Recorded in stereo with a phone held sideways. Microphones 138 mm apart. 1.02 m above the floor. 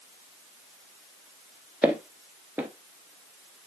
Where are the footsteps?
10° right (ahead or behind), 1.0 m.